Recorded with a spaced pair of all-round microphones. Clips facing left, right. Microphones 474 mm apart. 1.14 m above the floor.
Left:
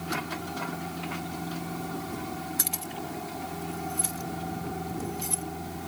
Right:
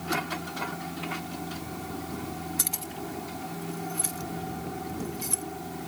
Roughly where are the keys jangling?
Centre.